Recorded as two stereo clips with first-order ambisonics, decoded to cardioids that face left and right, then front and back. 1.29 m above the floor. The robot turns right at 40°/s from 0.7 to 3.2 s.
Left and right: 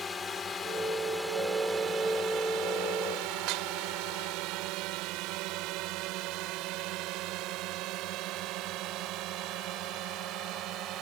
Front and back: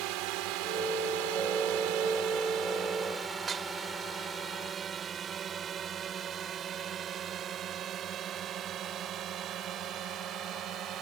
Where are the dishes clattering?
115° right.